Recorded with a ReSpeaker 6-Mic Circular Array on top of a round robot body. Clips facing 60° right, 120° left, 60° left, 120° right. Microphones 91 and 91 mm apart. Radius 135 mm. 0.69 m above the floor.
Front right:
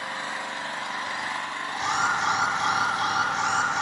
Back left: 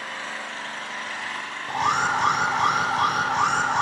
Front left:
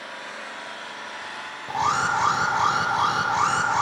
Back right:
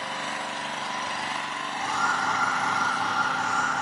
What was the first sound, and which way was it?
An engine running, 135° right.